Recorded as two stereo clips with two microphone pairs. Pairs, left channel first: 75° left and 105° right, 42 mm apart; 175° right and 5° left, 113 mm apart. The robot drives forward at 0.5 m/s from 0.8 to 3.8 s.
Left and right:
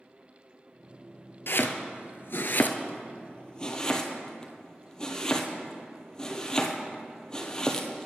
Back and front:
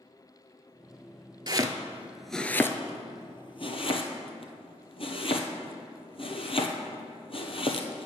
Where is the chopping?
50° left, 0.6 m; by 8.1 s 150° left, 0.9 m.